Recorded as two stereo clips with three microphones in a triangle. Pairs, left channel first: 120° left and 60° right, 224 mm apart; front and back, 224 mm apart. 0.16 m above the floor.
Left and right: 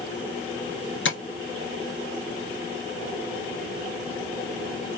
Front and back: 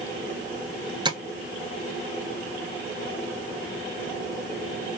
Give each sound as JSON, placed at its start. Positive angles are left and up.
{"t": 1.1, "sound": "tapping", "azimuth_deg": 115, "distance_m": 1.3}